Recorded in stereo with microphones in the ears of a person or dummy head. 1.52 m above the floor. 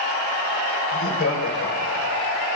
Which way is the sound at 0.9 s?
85° left.